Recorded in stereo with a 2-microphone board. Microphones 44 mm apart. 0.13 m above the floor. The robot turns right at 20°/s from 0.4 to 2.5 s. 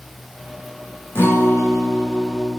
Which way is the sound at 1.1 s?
65° left (ahead or behind).